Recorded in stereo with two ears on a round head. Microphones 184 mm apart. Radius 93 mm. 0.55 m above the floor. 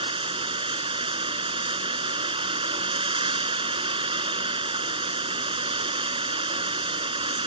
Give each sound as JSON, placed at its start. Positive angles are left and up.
{"t": 0.0, "sound": "running water", "side_deg": -25}